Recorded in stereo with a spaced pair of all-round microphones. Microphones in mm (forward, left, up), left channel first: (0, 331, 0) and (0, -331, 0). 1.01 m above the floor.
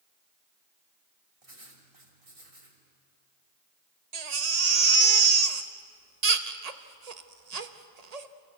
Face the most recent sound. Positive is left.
turn(degrees=-70)  # may be behind; listen again after turning